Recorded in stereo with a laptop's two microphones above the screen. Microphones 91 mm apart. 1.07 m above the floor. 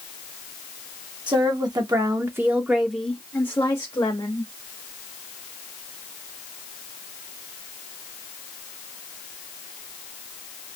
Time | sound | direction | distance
1.3 | a woman speaking | 55° right (ahead or behind) | 1.0 m